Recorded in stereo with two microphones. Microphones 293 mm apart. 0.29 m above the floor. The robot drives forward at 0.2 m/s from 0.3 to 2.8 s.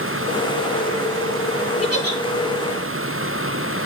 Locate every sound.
1.8 s a giggle: 55° left (ahead or behind), 2 m